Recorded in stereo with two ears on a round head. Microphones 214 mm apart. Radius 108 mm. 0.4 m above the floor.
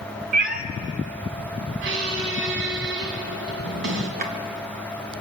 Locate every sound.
0.3 s a cat meowing: 40° right (ahead or behind), 0.8 m
1.8 s a squeak: 55° right (ahead or behind), 2 m
4.2 s a drawer: 40° right (ahead or behind), 1.8 m